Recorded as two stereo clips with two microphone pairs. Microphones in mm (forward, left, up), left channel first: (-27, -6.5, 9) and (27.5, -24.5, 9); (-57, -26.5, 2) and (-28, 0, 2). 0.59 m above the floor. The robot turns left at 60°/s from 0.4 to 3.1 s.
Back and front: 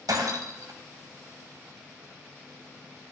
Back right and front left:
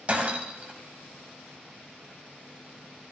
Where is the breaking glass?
15° right, 2.0 m; by 0.7 s 35° right, 2.0 m.